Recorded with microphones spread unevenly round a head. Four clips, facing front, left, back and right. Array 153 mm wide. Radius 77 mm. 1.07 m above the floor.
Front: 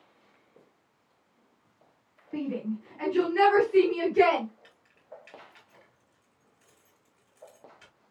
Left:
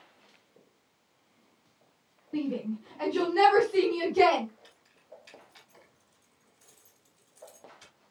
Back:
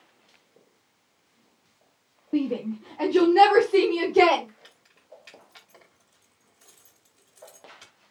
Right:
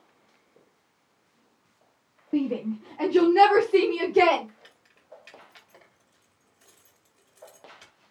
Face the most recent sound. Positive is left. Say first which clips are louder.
# right 2 dB, front 1 dB
turn(degrees=-135)